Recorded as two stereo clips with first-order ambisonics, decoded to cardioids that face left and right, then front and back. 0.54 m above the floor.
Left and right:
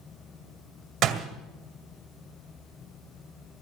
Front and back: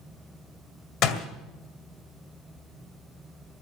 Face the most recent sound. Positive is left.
turn(degrees=-35)